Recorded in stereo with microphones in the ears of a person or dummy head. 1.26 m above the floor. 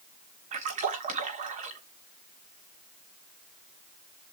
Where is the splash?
40° right (ahead or behind), 1.4 m.